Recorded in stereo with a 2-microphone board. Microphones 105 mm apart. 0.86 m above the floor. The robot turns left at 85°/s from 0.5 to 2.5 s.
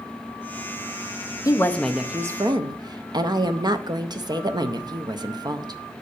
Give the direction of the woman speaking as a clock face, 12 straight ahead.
11 o'clock.